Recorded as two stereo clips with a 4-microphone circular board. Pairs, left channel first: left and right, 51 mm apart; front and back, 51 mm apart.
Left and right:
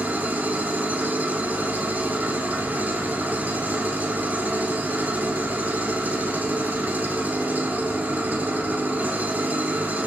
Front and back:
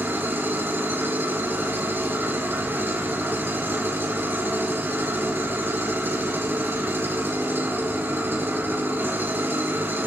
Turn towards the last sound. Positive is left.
turn(degrees=-140)